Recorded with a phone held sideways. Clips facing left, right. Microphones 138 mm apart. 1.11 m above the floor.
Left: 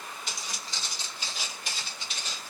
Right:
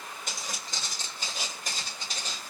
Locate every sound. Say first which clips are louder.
0.3 s footsteps: right 1 dB; 50° right (ahead or behind), 1.6 m; by 2.5 s 35° right (ahead or behind), 1.7 m